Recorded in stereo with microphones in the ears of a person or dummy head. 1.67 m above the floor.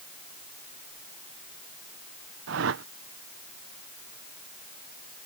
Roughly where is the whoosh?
Right.